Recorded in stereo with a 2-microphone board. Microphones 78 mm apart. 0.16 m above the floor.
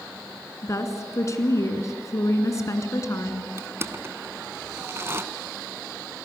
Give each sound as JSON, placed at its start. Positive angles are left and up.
{"t": 0.6, "sound": "a woman speaking", "side_deg": 40, "distance_m": 1.9}
{"t": 3.6, "sound": "crushing", "side_deg": -35, "distance_m": 0.8}